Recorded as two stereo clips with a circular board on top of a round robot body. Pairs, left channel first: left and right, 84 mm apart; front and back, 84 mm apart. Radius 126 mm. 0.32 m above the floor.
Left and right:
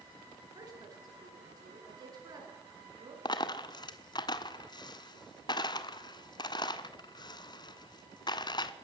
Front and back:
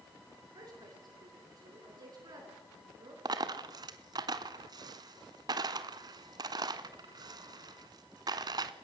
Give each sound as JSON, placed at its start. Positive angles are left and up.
{"t": 0.6, "sound": "a woman speaking", "azimuth_deg": -135, "distance_m": 5.5}
{"t": 3.2, "sound": "a dropped coin", "azimuth_deg": 135, "distance_m": 0.9}